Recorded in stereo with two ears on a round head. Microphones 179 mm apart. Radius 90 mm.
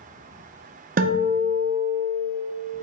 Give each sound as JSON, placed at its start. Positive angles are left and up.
{"t": 1.0, "sound": "a guitar", "side_deg": -45, "distance_m": 0.9}